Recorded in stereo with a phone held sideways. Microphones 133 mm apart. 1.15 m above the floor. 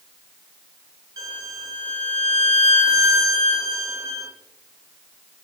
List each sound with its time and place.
1.2 s a violin: 25° right (ahead or behind), 0.7 m